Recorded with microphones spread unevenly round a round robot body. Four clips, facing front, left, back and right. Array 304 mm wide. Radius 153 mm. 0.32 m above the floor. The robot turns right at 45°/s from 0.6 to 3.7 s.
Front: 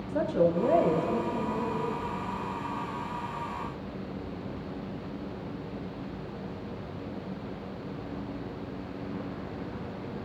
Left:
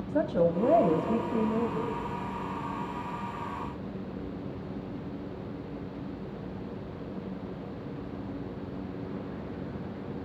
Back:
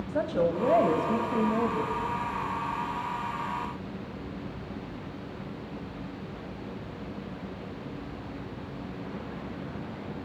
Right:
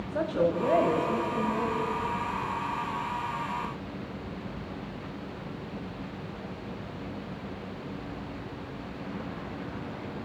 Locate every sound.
0.1 s a woman speaking: 90° left, 1.9 m; by 1.9 s 150° left, 1.9 m